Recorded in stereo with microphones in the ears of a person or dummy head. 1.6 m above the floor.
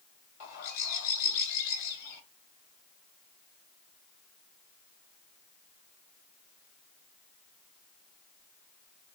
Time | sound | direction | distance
0.4 | a bird | 45° left (ahead or behind) | 2.5 m